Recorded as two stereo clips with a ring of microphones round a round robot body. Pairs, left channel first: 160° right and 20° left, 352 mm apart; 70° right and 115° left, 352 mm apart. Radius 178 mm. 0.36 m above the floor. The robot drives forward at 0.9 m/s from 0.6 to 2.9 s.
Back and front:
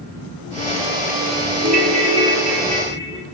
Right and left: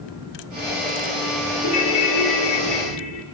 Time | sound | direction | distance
1.6 | a ringtone | 45° right | 2 m